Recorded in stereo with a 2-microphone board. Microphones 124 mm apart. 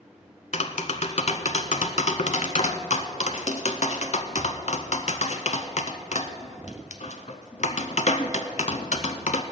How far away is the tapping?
About 0.7 m.